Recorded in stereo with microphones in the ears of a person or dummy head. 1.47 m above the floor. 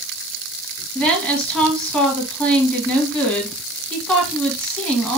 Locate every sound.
0.9 s a woman speaking: 5° right (ahead or behind), 1.3 m